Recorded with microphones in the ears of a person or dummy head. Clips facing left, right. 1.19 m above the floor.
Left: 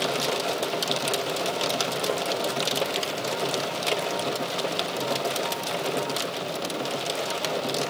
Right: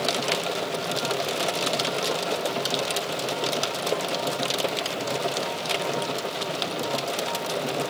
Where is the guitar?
No guitar in this recording.